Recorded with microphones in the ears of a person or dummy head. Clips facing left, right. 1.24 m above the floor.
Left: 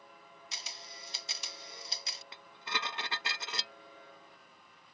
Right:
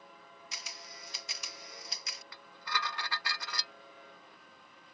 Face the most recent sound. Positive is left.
turn(degrees=25)  # may be behind; listen again after turning